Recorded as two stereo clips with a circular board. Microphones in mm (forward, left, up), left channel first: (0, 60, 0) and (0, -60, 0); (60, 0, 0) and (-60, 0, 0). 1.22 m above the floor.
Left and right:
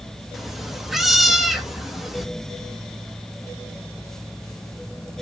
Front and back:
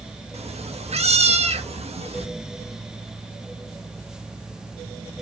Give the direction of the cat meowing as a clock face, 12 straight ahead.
6 o'clock.